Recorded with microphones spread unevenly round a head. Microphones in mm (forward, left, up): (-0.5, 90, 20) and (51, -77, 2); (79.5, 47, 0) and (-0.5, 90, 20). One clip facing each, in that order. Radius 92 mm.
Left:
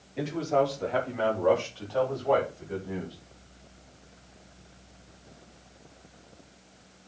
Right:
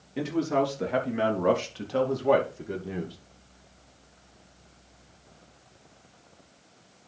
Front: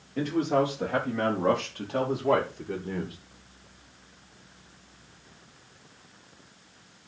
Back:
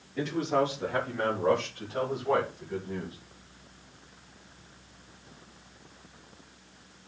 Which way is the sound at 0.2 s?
95° right.